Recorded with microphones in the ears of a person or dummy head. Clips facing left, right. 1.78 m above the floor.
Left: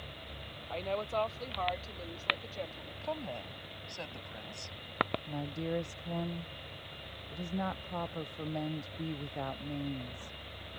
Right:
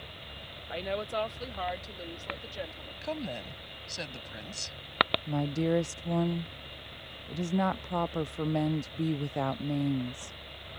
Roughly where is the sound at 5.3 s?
Right.